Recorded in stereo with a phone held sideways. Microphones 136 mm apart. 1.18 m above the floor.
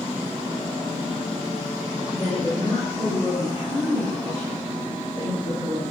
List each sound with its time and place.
2.1 s a woman speaking: 25° left (ahead or behind), 1.5 m; by 5.8 s 55° left (ahead or behind), 4 m